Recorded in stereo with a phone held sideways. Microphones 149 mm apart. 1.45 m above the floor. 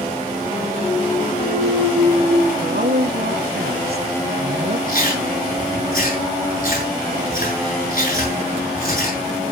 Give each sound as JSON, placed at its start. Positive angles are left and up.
{"t": 0.8, "sound": "a clunk", "side_deg": 75, "distance_m": 7.0}
{"t": 2.6, "sound": "a woman speaking", "side_deg": -85, "distance_m": 1.2}
{"t": 4.9, "sound": "chewing", "side_deg": 65, "distance_m": 9.0}